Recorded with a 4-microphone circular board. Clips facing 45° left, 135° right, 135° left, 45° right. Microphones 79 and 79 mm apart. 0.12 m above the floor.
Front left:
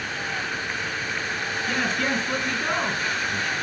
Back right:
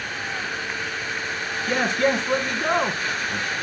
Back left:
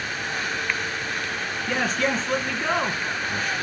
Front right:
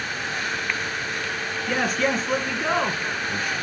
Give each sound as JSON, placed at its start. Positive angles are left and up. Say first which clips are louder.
{"t": 1.7, "sound": "a man speaking", "louder": "back right 5 dB, front right 1 dB", "azimuth_deg": -125, "distance_m": 1.2}